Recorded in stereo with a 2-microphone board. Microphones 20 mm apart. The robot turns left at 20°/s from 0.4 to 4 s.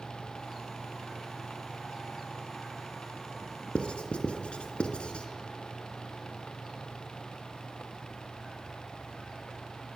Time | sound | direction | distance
3.8 | writing | 80° left | 2.5 m